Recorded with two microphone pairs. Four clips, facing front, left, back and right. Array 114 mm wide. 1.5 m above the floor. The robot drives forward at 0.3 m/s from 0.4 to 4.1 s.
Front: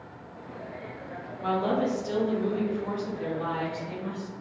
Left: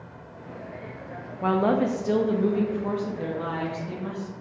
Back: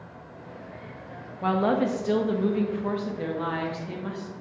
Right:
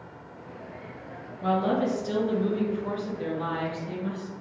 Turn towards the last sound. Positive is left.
turn(degrees=155)